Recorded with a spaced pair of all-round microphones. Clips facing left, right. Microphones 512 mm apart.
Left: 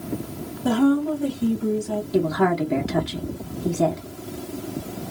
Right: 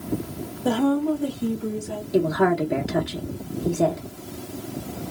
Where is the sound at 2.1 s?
25° left (ahead or behind), 0.6 m.